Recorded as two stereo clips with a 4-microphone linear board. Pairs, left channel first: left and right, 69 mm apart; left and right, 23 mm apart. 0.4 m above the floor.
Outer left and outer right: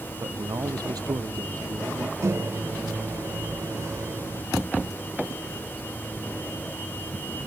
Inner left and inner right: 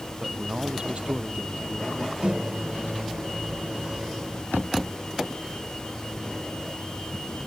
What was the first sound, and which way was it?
A man speaking, 60° right (ahead or behind).